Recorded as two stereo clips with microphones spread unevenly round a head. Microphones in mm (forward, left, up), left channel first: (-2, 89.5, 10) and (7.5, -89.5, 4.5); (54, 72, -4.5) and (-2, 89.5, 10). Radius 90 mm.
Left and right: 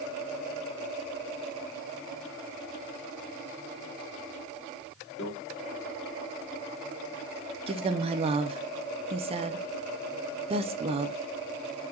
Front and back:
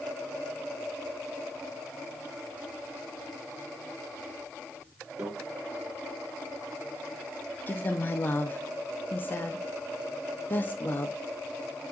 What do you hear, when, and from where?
5.2 s a microwave: 125° left, 2 m
7.7 s a woman speaking: 45° right, 0.5 m